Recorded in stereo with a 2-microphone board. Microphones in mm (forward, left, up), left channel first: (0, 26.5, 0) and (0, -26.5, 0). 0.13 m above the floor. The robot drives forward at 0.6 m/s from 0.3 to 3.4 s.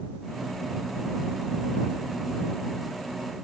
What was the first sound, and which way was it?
Only background noise.